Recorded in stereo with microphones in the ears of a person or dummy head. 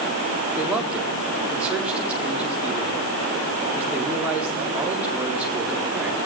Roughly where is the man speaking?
Centre.